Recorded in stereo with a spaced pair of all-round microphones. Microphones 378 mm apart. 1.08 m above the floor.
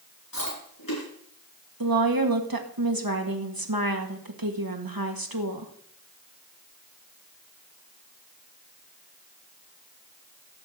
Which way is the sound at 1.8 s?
65° right (ahead or behind).